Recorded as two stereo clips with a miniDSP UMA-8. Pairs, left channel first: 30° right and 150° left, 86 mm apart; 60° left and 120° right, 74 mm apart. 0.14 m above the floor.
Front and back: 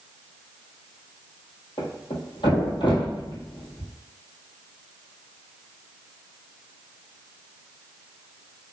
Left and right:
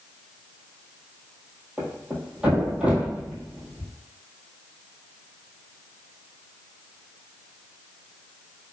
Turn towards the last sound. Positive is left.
turn(degrees=-45)